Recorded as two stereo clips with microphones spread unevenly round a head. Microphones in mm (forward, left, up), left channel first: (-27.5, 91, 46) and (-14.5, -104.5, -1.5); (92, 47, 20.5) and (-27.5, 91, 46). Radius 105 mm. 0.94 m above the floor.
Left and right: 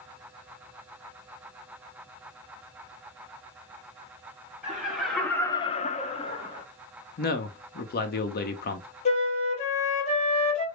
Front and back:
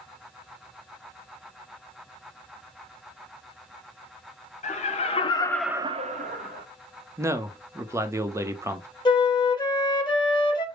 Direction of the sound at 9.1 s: 35° left.